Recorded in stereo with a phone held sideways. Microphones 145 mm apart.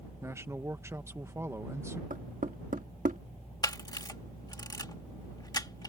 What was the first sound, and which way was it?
A man speaking, 20° right (ahead or behind).